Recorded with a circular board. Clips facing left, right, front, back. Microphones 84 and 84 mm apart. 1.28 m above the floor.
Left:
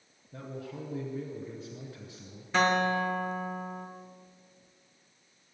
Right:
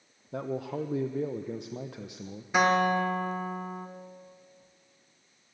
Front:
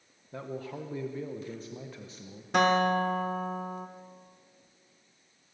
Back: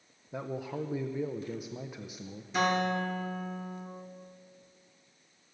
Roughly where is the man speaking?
Right.